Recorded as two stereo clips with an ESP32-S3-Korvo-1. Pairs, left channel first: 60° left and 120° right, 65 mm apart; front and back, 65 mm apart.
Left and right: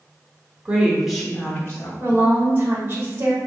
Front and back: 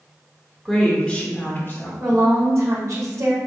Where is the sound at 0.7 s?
90° right, 0.9 m; by 1.9 s 25° left, 1.1 m.